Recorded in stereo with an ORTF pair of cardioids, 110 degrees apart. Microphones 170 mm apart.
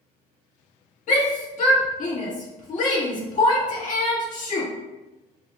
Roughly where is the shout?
Ahead left.